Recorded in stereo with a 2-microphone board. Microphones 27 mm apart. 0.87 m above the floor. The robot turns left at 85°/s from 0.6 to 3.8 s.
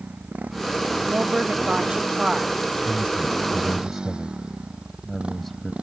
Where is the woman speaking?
60° right; by 2.5 s straight behind.